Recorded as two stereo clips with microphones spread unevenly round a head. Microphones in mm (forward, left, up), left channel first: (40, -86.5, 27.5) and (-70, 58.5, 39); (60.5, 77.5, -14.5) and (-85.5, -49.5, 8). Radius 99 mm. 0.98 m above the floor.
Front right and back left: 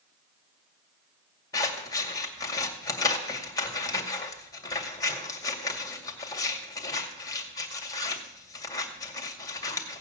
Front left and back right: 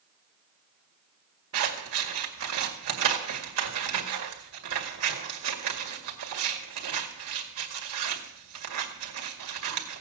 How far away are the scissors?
About 2 m.